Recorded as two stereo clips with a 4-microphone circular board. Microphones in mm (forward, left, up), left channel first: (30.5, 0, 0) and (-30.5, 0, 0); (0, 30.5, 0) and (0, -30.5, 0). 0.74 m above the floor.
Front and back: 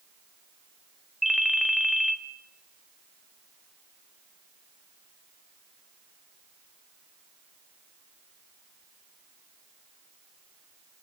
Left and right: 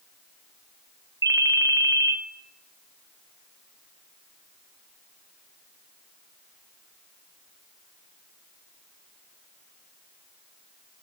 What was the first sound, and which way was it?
A ringtone, 90° right.